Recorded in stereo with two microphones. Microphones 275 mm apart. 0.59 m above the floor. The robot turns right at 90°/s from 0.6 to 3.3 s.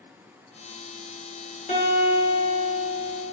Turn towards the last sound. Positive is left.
turn(degrees=-60)